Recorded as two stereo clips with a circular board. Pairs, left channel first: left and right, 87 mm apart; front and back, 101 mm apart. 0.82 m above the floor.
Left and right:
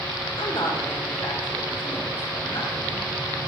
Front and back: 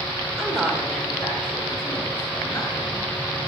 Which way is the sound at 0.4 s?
95° left.